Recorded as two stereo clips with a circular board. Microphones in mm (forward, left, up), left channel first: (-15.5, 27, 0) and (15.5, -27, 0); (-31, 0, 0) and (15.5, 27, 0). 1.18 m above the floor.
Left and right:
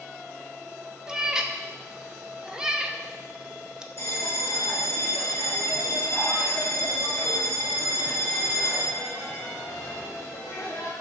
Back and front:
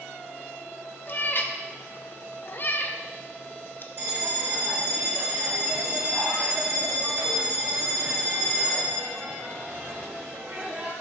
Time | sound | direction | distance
1.1 | a cat meowing | 130° right | 0.6 m
4.0 | a bell | 80° left | 1.4 m